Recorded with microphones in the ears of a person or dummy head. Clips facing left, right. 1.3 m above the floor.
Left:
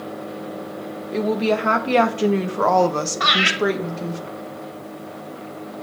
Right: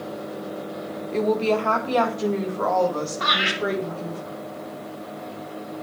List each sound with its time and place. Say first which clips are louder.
1.1 s a woman speaking: left 1 dB; 5° left (ahead or behind), 1.1 m; by 4.2 s 90° left, 1.6 m
3.2 s laughter: left 3 dB; 80° left, 2.5 m